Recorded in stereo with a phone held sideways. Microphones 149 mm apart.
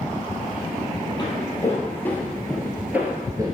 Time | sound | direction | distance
1.2 | footsteps | 25° left (ahead or behind) | 2.5 m